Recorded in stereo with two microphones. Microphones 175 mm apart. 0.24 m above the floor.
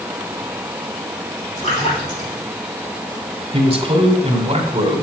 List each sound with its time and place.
1.6 s a splash: 40° left (ahead or behind), 6 m
3.5 s a man speaking: 35° right (ahead or behind), 1.9 m